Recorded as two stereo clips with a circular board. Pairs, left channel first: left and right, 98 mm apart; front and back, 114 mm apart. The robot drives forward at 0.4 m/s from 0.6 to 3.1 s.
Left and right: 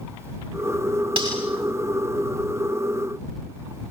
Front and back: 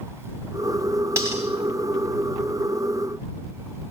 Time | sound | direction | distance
1.2 | cutlery clinking | 120° right | 9 m